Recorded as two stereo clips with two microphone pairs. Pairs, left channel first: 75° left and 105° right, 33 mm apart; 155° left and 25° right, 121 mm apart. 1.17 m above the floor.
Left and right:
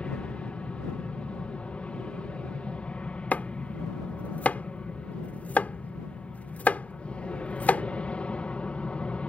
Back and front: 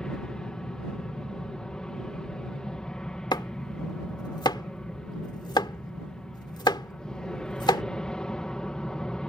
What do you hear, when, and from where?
0.0 s an aircraft: 75° left
3.3 s chopping: 100° left